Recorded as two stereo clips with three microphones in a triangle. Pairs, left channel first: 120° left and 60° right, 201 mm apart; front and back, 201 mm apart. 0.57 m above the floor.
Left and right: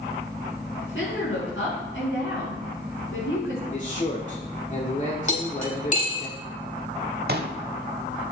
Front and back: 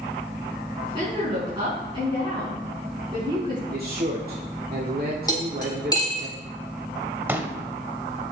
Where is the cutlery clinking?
70° left, 2.0 m.